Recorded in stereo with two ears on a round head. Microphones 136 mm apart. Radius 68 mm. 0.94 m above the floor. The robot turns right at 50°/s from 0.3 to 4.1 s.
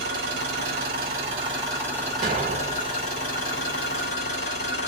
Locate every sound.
0.0 s an engine running: 95° right, 3 m; by 4.9 s 95° left, 3 m
2.2 s an explosion: 140° right, 1.3 m; by 2.9 s 100° right, 1.3 m